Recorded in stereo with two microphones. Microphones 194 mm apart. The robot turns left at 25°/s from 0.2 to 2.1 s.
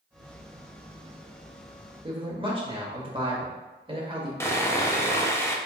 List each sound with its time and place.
2.0 s a man speaking: 30° right (ahead or behind), 1.0 m; by 4.3 s 25° right (ahead or behind), 1.0 m
4.4 s sawing: 15° left (ahead or behind), 0.5 m